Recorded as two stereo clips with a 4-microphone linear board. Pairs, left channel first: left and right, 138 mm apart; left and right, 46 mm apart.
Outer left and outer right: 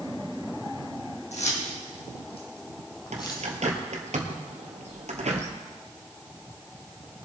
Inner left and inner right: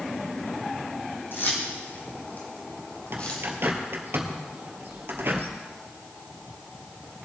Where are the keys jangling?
55° left (ahead or behind), 4 m; by 3.5 s 25° left (ahead or behind), 3 m.